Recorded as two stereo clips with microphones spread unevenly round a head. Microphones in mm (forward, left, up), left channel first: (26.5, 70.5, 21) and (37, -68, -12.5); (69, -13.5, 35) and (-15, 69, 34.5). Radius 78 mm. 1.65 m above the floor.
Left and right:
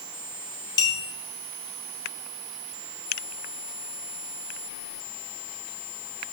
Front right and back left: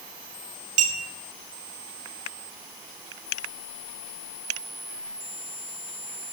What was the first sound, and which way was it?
A clink, 145° left.